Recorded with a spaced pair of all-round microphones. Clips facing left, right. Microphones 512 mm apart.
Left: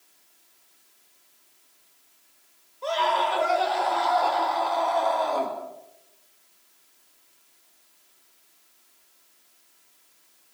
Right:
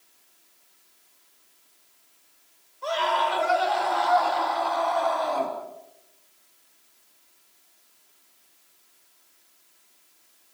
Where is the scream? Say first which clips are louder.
Left 1 dB; 30° right (ahead or behind), 5.5 m.